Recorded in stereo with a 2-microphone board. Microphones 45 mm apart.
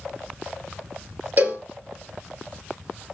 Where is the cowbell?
40° right (ahead or behind), 1.9 m.